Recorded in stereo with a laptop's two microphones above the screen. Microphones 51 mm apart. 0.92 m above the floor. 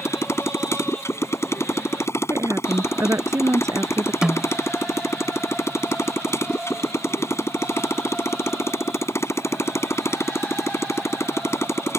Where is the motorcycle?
65° left (ahead or behind).